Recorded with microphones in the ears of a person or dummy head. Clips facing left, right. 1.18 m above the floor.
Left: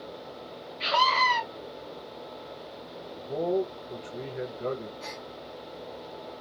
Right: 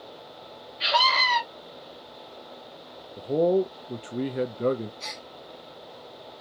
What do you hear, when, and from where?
0.8 s a scream: 15° right (ahead or behind), 2.5 m
3.2 s a man speaking: 60° right (ahead or behind), 0.6 m
5.0 s a gasp: 30° right (ahead or behind), 0.8 m